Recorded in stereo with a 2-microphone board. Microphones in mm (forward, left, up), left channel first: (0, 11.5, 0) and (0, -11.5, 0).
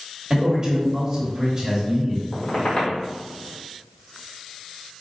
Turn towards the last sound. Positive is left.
turn(degrees=40)  # may be behind; listen again after turning